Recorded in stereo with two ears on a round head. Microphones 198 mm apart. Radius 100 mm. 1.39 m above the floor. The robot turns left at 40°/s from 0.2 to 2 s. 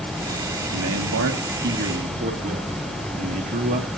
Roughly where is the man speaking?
Right.